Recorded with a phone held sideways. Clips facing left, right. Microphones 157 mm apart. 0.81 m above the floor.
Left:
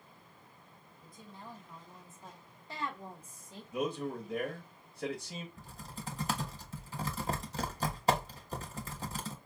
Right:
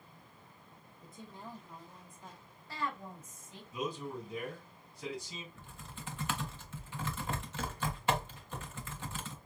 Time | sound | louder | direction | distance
1.0 | a woman speaking | right 2 dB | 25° right (ahead or behind) | 1.2 m
3.7 | a man speaking | left 4 dB | 55° left (ahead or behind) | 1.1 m
5.6 | typing on a keyboard | left 3 dB | 40° left (ahead or behind) | 0.8 m